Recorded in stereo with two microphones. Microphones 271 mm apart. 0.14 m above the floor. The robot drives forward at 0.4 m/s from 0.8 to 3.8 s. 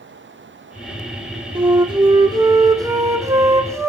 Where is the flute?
20° right (ahead or behind), 1.0 m; by 3.9 s 10° right (ahead or behind), 1.8 m.